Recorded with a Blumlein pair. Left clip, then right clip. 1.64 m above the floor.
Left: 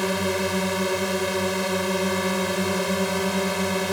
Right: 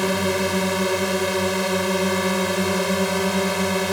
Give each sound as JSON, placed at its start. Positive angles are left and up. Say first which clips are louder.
{"t": 0.0, "sound": "a drone", "louder": "right 3 dB", "azimuth_deg": -10}